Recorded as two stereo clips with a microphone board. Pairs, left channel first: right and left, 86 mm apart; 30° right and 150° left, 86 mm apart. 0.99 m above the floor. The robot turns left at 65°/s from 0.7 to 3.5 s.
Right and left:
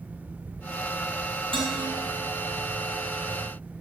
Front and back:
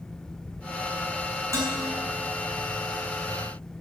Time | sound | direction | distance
1.5 | dishes clattering | 95° left | 5.5 m